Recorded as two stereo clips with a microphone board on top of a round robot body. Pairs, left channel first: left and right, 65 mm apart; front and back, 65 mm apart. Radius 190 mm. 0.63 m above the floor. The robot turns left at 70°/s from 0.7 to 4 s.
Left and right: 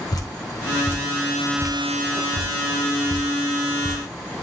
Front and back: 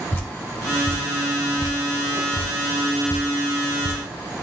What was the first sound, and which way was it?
Dripping, 60° left.